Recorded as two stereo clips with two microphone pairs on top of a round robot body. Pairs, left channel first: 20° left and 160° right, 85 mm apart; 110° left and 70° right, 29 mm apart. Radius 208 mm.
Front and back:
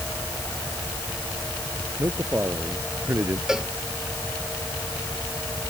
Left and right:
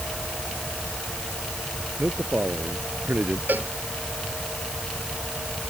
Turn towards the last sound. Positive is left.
turn(degrees=-75)